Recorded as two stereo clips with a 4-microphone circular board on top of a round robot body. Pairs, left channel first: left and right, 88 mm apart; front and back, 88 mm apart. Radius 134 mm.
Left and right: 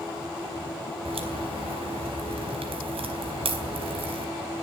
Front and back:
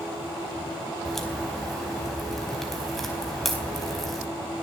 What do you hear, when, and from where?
1.1 s a crack: 90° right, 4.5 m